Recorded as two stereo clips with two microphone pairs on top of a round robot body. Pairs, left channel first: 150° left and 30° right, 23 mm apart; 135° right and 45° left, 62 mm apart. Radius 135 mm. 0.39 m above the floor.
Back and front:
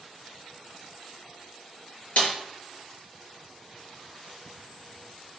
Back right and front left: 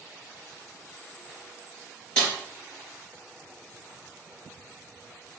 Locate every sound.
2.2 s a snare drum: 150° left, 4 m